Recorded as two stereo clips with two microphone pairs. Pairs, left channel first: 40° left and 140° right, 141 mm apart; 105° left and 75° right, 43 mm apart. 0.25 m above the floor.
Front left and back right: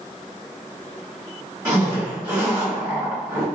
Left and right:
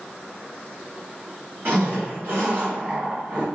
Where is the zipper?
70° right, 1.7 m.